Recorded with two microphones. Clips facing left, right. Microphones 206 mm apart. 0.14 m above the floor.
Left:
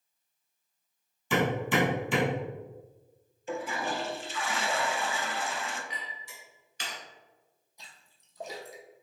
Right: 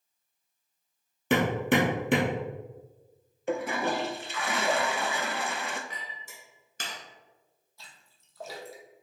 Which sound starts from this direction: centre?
A splash, at 7.8 s.